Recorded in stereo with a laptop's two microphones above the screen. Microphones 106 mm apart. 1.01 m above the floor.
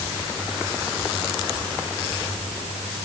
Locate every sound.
Only background noise.